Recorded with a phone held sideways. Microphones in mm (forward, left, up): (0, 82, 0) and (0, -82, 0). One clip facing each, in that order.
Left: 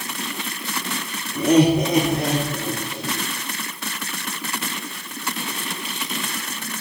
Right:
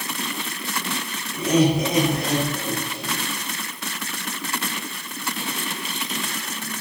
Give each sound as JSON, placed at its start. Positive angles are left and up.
{"t": 1.4, "sound": "laughter", "side_deg": 55, "distance_m": 3.5}